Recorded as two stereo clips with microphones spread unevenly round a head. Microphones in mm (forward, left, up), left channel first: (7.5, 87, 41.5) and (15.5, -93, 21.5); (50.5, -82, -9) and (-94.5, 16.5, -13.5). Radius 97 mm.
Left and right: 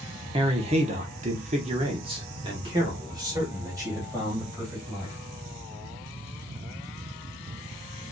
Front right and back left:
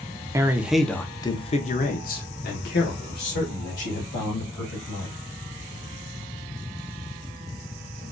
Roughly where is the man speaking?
Behind right.